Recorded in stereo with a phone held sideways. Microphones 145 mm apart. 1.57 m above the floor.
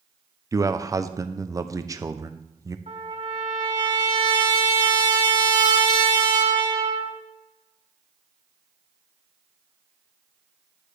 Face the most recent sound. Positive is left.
turn(degrees=-50)  # may be behind; listen again after turning